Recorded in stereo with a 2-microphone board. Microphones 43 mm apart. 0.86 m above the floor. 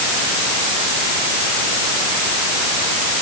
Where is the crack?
No crack in this recording.